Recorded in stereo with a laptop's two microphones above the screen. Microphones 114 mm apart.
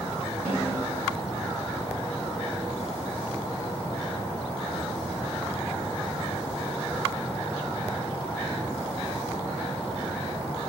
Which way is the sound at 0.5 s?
70° right (ahead or behind).